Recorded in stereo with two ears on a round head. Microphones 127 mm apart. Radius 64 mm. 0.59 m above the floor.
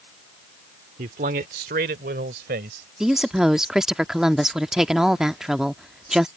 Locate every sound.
1.0 s a man speaking: 60° right (ahead or behind); by 2.9 s 75° right (ahead or behind)
3.0 s a woman speaking: 5° right (ahead or behind)